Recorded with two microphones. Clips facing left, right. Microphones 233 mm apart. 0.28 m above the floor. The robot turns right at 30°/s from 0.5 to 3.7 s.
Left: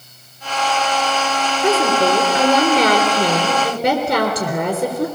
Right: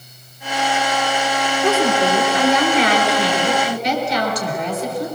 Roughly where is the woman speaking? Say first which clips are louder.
Left 1 dB; ahead.